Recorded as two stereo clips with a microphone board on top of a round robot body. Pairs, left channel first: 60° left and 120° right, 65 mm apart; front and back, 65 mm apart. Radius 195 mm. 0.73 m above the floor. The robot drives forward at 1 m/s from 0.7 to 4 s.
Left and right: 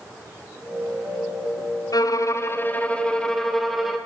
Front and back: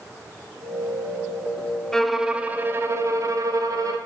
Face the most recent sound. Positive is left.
turn(degrees=155)